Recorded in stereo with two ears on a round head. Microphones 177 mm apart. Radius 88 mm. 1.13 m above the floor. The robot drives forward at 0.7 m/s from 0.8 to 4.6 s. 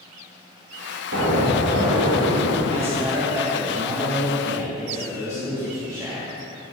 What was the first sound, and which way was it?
An explosion, 85° right.